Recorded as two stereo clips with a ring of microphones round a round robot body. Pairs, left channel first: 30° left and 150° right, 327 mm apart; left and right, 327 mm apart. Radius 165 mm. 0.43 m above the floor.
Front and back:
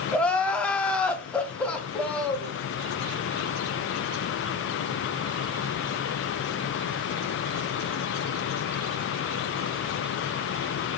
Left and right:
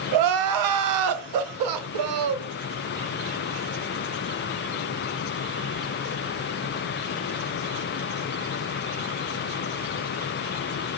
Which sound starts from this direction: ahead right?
Crying, at 0.1 s.